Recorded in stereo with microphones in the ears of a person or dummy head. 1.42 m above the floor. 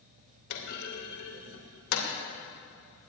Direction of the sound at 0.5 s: 80° left.